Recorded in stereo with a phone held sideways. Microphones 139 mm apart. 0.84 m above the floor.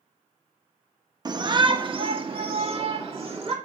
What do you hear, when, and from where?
1.2 s a shout: 30° right (ahead or behind), 0.8 m; by 3.5 s 45° right (ahead or behind), 2 m